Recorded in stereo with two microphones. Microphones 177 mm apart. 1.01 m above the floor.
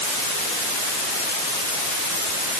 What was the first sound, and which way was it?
Only background noise.